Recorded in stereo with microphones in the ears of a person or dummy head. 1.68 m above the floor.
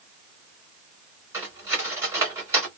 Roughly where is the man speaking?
No man speaking in this recording.